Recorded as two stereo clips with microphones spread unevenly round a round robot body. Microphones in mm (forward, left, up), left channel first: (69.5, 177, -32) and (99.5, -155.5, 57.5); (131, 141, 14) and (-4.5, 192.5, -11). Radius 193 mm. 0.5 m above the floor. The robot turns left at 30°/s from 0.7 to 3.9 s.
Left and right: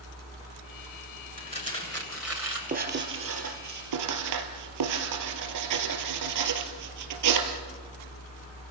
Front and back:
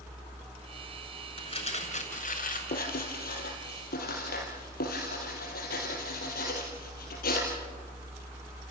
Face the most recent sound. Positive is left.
turn(degrees=-55)